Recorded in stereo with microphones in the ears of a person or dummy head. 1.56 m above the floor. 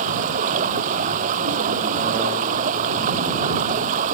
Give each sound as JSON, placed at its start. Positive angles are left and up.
{"t": 0.0, "sound": "running water", "side_deg": -45}